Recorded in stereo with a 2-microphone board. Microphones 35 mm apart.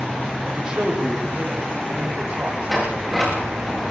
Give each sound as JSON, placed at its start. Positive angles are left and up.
{"t": 0.5, "sound": "a man speaking", "side_deg": -25, "distance_m": 8.0}
{"t": 2.7, "sound": "a sliding door", "side_deg": 0, "distance_m": 9.0}